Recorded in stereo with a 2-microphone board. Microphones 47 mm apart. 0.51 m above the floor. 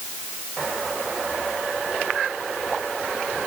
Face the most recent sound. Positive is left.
No sound to turn to.